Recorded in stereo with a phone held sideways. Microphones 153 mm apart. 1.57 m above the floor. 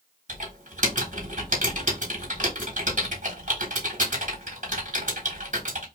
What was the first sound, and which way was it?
Typing on a keyboard, 55° right (ahead or behind).